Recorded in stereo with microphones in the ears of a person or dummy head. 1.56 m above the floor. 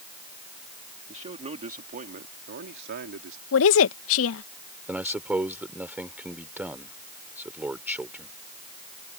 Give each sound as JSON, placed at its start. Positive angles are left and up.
{"t": 1.1, "sound": "a man speaking", "side_deg": -25}
{"t": 3.5, "sound": "a woman speaking", "side_deg": 70}
{"t": 4.9, "sound": "a man speaking", "side_deg": -5}